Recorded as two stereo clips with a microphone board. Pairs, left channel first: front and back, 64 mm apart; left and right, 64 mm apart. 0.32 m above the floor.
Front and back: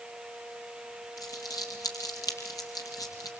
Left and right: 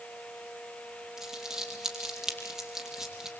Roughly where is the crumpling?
Ahead.